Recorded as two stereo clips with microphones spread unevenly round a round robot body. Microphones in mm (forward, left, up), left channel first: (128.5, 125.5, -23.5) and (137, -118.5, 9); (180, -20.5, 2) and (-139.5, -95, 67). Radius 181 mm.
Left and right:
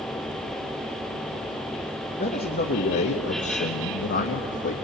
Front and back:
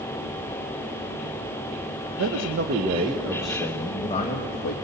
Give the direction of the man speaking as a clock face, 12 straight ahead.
7 o'clock.